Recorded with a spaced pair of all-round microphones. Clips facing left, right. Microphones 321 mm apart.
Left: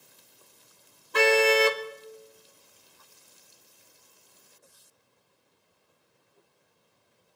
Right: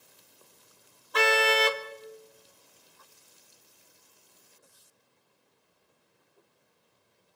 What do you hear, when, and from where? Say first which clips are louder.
1.1 s a car horn: left 5 dB; 35° left (ahead or behind), 2 m